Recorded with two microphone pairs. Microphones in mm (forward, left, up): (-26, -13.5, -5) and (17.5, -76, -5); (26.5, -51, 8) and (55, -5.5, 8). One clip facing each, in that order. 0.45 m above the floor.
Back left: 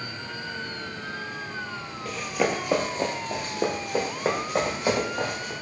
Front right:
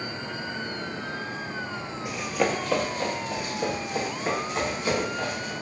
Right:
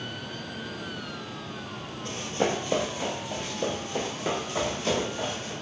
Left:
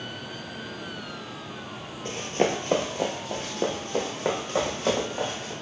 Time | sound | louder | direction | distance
2.0 | running footsteps | even, left 3 dB | 10° left | 0.6 m